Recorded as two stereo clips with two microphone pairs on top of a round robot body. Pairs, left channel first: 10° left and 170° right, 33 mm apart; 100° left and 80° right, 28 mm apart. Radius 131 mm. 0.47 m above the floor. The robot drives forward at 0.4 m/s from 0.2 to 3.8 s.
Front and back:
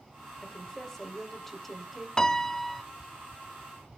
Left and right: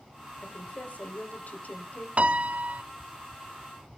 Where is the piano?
50° right, 0.8 m; by 2.8 s 75° right, 0.7 m.